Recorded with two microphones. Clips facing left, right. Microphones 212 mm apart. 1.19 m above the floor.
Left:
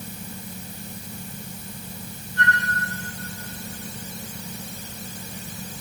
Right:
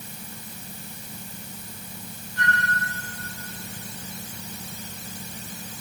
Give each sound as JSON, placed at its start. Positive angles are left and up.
{"t": 2.4, "sound": "a flute", "side_deg": 25, "distance_m": 7.5}